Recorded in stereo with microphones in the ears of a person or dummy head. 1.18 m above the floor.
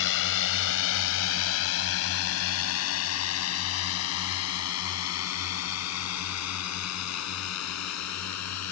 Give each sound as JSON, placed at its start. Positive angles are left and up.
{"t": 0.0, "sound": "a drone", "side_deg": 60}